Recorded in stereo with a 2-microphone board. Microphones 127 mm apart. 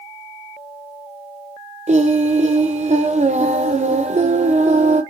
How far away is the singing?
About 0.5 m.